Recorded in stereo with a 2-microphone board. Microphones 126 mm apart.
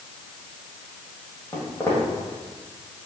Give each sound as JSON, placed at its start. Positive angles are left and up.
{"t": 1.5, "sound": "footsteps", "side_deg": 20, "distance_m": 1.9}